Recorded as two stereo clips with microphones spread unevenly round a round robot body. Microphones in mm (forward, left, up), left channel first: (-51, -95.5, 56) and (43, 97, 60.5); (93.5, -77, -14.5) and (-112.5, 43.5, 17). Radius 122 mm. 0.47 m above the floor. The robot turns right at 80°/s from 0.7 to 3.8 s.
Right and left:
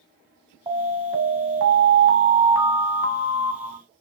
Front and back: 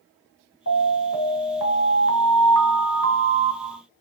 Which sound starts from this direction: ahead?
An alarm, at 0.7 s.